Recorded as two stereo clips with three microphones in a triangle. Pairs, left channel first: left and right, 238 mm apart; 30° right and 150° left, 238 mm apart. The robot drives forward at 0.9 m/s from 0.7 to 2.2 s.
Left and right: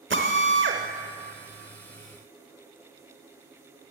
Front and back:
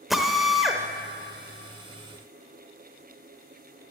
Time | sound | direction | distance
0.1 | a drill | 120° right | 0.9 m